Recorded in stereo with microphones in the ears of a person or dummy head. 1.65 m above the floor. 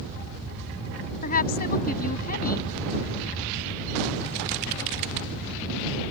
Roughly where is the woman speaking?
Left.